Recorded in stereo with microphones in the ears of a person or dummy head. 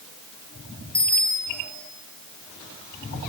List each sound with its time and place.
0.9 s a bicycle bell: 5° left (ahead or behind), 4.5 m